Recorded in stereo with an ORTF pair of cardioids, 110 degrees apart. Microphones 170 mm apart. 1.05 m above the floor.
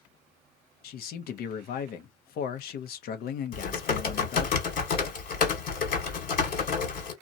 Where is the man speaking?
65° left, 0.7 m.